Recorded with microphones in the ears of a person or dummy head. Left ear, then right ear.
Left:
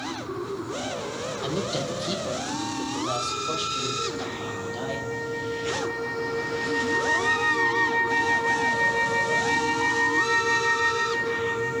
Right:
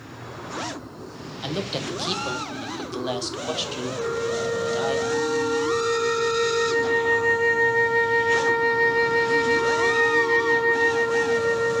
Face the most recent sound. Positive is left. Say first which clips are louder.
# right 4 dB
turn(degrees=-35)  # may be behind; listen again after turning